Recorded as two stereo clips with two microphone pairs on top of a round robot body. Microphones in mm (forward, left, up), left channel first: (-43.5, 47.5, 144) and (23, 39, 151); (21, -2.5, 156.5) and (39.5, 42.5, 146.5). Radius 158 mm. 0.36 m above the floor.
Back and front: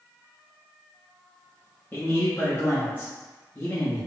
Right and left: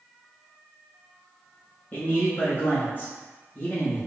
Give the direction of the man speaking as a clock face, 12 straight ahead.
5 o'clock.